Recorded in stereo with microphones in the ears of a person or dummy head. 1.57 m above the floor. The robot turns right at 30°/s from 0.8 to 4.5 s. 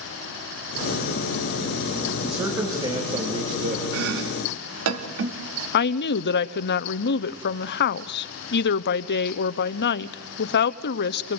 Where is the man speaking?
175° right, 3 m; by 3.8 s 125° right, 3 m.